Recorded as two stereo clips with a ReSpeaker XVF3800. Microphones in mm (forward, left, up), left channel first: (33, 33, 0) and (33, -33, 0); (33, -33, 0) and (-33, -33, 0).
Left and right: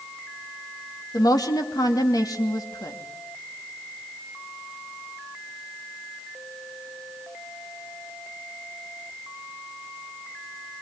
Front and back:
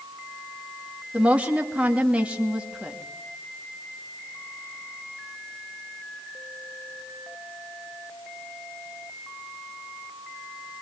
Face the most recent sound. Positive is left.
turn(degrees=110)